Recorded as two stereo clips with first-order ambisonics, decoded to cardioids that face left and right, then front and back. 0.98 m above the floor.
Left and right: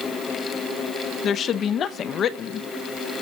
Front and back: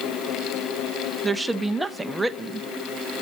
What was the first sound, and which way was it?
A woman speaking, 105° left.